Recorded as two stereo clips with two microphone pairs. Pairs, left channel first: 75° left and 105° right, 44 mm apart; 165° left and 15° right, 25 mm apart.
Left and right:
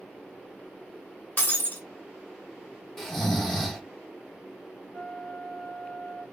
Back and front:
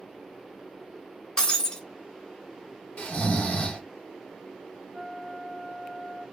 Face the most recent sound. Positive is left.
turn(degrees=30)